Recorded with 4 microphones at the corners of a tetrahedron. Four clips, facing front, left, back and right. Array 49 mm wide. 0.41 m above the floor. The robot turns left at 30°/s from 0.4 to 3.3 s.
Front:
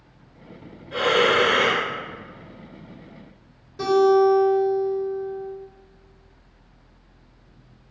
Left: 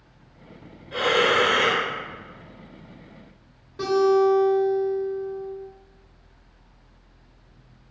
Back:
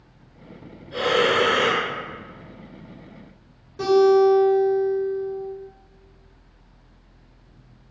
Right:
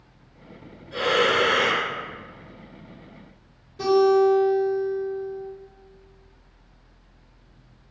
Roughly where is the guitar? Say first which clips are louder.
Right 1 dB, back 1 dB; left.